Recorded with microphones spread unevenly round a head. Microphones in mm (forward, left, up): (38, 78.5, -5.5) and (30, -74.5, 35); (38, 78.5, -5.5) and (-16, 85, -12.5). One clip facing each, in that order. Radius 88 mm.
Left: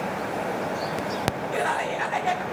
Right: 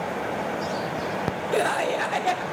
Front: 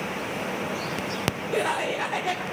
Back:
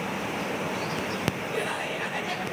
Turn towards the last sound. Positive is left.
turn(degrees=-45)